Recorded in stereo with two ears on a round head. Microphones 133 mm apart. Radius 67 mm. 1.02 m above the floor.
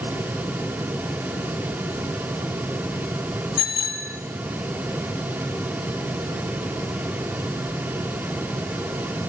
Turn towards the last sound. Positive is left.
turn(degrees=70)  # may be behind; listen again after turning